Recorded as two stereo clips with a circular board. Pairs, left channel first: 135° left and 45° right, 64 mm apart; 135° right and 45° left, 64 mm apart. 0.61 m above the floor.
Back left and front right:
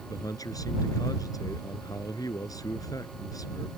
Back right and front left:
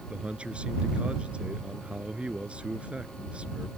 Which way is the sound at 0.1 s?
120° left.